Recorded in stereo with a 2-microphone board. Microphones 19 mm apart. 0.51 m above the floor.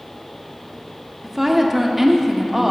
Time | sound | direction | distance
1.2 | a woman speaking | 15° right (ahead or behind) | 0.7 m